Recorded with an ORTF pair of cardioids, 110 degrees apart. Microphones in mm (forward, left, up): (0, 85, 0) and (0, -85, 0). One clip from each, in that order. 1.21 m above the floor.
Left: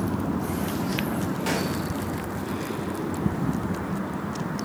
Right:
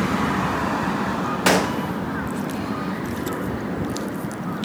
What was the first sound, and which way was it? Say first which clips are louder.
A gunshot: right 10 dB; 65° right.